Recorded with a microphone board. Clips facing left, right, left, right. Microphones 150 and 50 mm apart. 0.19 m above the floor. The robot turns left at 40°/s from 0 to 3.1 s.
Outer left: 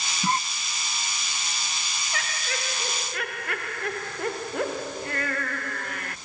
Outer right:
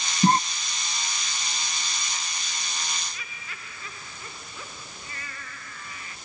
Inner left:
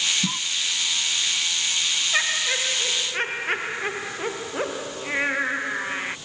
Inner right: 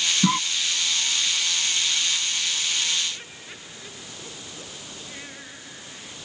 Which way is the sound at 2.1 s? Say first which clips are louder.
Outer left 5 dB, inner left 5 dB; 105° left.